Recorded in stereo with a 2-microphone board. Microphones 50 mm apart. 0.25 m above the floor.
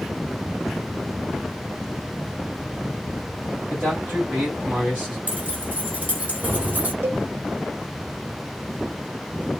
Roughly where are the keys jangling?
Right.